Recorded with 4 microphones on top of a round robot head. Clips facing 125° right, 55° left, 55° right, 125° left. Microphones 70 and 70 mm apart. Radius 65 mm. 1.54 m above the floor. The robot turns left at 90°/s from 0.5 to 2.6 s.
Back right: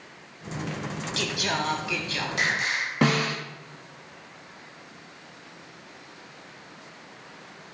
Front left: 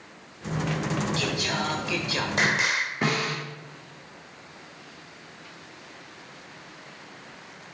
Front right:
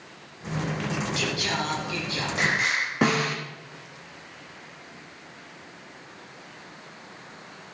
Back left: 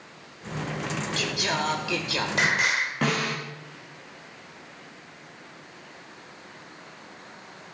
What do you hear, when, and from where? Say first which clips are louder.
1.2 s singing: even, even; 140° right, 1.0 m; by 2.9 s 90° left, 1.0 m
3.0 s a snare drum: back right 5 dB, front right 5 dB; 135° right, 2.5 m